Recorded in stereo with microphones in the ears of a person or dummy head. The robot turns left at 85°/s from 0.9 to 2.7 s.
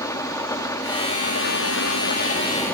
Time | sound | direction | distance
0.0 | an engine running | 165° left | 1.6 m